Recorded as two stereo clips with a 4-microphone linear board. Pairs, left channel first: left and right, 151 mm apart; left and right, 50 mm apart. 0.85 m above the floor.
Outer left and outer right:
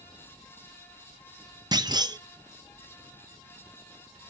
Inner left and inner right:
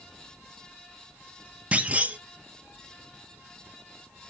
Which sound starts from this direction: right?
A clunk, at 1.7 s.